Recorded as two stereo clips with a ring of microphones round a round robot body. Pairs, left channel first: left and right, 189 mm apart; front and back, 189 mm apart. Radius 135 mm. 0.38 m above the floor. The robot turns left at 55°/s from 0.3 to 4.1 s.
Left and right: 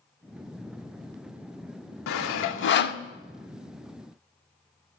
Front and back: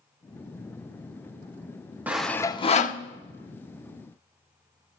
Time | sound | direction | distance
2.1 | sawing | 100° left | 0.5 m